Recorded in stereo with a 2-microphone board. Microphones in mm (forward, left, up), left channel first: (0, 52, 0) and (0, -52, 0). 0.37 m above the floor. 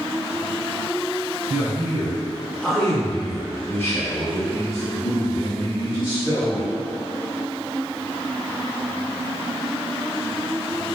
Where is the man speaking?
20° right (ahead or behind), 1.3 m; by 6.7 s 45° left (ahead or behind), 2 m.